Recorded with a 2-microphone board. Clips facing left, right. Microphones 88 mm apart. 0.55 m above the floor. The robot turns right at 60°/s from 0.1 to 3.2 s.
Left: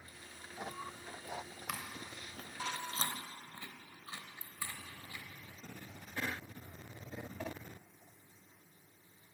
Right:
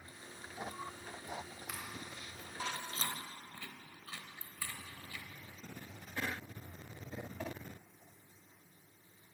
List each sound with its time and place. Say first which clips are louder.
1.7 s chewing: left 4 dB; 65° left (ahead or behind), 0.6 m; by 5.2 s 20° left (ahead or behind), 0.6 m